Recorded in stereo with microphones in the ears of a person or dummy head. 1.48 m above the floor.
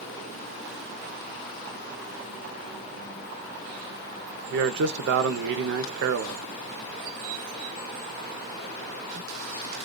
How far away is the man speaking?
About 0.6 m.